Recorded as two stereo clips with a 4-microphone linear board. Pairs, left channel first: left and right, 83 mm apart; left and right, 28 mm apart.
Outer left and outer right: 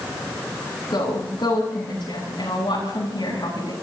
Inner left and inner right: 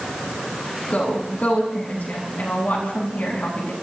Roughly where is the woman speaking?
Left.